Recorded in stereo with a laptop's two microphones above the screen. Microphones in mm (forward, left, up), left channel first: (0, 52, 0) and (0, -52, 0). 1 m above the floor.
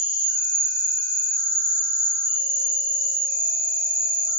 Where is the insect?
50° right (ahead or behind), 2 m.